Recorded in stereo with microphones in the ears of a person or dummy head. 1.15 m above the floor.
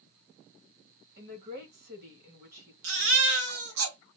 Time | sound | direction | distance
1.2 | a woman speaking | 50° right (ahead or behind) | 1.7 m
2.8 | a baby crying | 65° right (ahead or behind) | 1.3 m